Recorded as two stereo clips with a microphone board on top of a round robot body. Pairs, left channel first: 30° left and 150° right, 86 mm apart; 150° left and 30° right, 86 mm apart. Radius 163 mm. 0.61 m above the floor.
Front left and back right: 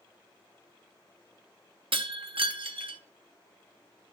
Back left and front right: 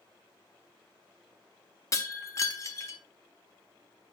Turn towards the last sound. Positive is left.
turn(degrees=-160)